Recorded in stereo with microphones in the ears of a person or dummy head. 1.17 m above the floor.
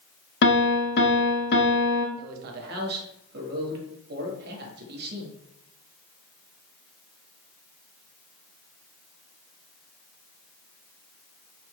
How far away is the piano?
About 0.9 m.